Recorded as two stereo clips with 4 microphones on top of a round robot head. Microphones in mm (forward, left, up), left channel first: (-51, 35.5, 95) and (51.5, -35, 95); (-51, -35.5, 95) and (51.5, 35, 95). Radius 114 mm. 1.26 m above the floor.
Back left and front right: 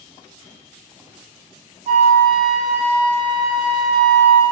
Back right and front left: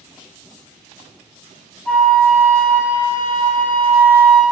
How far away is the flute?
About 1.0 m.